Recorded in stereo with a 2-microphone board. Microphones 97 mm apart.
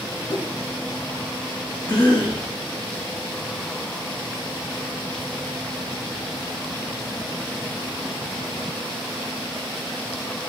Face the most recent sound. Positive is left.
turn(degrees=45)  # may be behind; listen again after turning